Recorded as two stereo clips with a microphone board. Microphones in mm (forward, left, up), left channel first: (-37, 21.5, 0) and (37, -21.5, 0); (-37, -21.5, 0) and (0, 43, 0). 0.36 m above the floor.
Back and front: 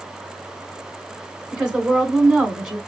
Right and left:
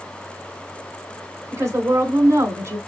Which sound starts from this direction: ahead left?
A woman speaking, at 1.5 s.